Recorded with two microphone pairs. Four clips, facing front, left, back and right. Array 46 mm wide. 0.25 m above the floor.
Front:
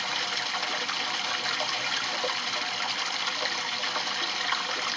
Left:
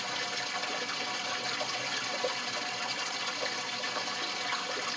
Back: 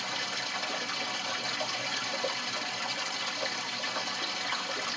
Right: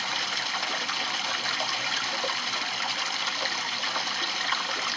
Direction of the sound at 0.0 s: 55° right.